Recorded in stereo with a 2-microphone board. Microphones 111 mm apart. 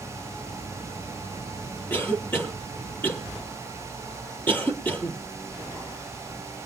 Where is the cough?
20° left (ahead or behind), 3.5 m.